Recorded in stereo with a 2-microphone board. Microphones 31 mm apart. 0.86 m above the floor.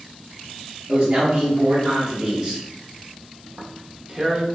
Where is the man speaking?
60° right (ahead or behind), 1.4 m; by 2.6 s 30° right (ahead or behind), 0.8 m.